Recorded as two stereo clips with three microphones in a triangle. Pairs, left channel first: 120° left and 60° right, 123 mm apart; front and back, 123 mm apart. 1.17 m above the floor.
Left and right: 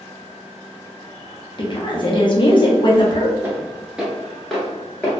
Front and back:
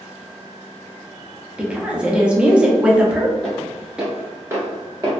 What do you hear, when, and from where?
1.6 s a woman speaking: 100° left, 0.7 m
3.4 s footsteps: 65° right, 1.1 m; by 5.1 s 170° right, 1.4 m